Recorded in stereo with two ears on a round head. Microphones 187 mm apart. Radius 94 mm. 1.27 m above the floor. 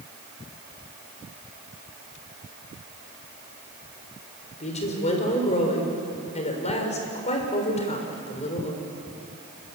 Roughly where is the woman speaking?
Left.